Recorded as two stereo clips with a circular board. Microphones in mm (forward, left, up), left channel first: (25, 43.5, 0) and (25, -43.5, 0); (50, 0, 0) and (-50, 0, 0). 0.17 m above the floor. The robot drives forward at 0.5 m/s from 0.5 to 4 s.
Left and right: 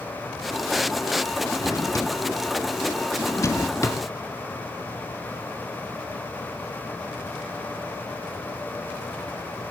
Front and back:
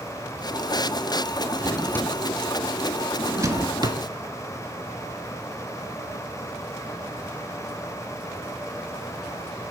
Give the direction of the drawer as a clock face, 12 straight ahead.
10 o'clock.